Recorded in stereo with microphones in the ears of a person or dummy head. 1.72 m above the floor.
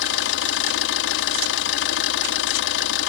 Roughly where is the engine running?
Left.